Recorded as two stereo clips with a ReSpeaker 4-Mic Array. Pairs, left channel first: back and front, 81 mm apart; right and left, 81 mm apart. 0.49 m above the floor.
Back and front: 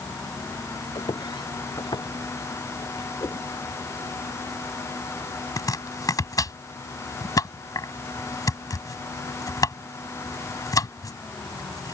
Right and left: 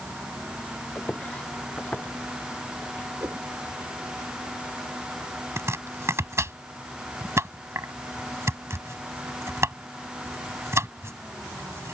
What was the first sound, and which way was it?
Footsteps, 165° right.